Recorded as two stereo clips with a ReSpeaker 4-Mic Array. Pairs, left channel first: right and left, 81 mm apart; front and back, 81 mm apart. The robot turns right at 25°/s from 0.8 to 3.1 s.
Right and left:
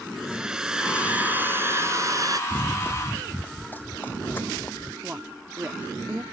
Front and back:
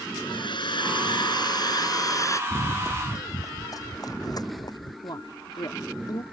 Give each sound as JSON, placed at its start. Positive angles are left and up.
{"t": 0.2, "sound": "a hair dryer", "azimuth_deg": 10}
{"t": 2.5, "sound": "running footsteps", "azimuth_deg": -40}
{"t": 5.0, "sound": "a woman speaking", "azimuth_deg": 25}